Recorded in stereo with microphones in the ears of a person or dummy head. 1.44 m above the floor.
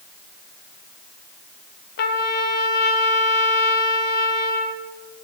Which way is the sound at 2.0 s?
55° left (ahead or behind).